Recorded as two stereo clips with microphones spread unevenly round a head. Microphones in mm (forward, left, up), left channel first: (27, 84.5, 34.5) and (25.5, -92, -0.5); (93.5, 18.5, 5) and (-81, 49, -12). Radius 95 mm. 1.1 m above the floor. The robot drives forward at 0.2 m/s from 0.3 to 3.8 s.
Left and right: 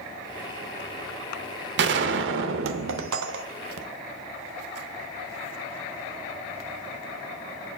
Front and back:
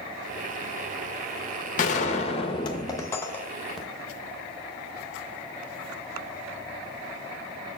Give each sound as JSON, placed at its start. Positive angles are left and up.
{"t": 1.8, "sound": "a gunshot", "azimuth_deg": -60, "distance_m": 0.6}